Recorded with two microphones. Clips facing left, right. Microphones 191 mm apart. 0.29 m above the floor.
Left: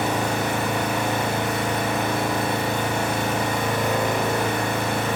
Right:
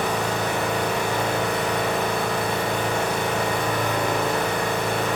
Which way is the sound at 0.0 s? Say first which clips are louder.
Left 1 dB; 25° left (ahead or behind).